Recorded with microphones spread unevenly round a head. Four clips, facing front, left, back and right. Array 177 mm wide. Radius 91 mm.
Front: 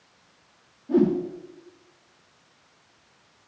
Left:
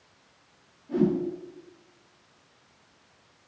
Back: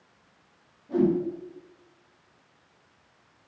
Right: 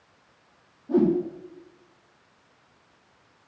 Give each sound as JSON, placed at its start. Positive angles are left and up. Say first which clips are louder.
{"t": 0.9, "sound": "a whoosh", "louder": "right 4 dB, front 3 dB", "azimuth_deg": -40, "distance_m": 2.0}